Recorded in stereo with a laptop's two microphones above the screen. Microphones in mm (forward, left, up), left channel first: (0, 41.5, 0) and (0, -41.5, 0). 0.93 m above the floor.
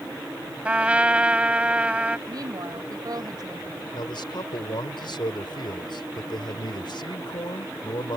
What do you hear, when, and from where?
0.7 s a trumpet: 15° right (ahead or behind)
2.3 s a woman speaking: 60° right (ahead or behind)
3.9 s a man speaking: 80° left